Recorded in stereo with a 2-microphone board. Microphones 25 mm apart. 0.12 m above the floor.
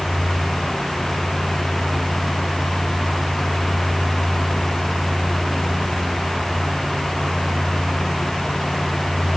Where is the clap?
No clap in this recording.